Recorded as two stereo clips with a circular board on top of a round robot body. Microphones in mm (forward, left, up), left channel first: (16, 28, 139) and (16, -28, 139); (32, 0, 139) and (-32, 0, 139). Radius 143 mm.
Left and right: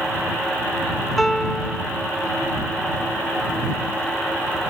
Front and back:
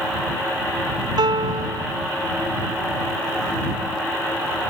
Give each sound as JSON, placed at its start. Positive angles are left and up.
{"t": 1.2, "sound": "a piano", "azimuth_deg": 175}